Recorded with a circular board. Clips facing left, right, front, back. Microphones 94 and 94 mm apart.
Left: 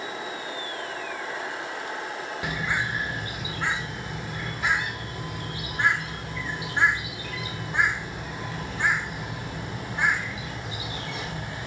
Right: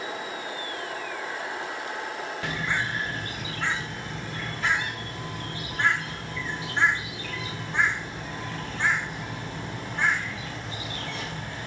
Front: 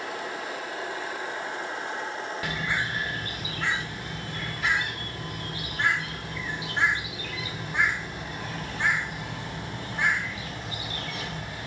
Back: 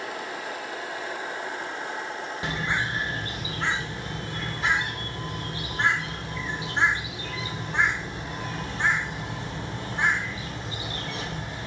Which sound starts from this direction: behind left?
A bird, at 2.4 s.